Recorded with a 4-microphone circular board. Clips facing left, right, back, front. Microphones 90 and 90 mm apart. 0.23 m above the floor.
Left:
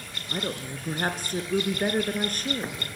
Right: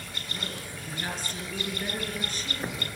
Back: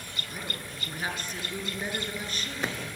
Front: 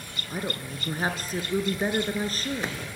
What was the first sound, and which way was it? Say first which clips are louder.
A woman speaking: left 8 dB, front 9 dB; 55° left.